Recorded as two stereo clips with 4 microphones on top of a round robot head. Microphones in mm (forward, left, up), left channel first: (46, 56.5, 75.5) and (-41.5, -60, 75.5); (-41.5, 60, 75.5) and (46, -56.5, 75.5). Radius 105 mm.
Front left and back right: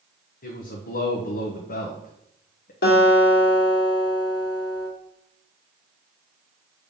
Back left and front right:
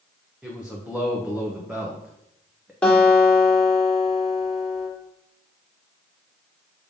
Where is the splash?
No splash in this recording.